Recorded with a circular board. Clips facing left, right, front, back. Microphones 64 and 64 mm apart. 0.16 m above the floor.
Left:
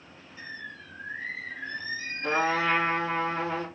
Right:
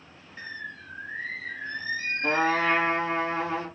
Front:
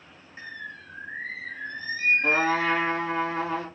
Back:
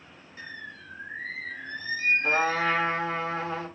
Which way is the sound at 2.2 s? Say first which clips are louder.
Right 1 dB, front 1 dB; 15° right.